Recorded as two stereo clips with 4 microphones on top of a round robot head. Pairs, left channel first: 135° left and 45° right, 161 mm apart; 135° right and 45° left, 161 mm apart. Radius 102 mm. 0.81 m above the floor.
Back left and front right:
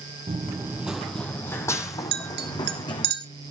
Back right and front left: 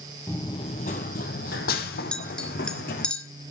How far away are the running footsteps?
About 0.8 m.